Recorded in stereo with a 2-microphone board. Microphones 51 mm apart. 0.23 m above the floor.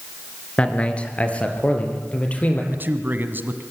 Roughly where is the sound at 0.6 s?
Left.